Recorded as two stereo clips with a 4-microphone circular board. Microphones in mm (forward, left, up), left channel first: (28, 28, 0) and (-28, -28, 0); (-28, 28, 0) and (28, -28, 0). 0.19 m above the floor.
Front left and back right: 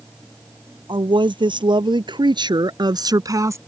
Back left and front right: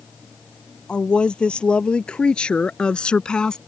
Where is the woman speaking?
145° right; by 3.6 s 150° right.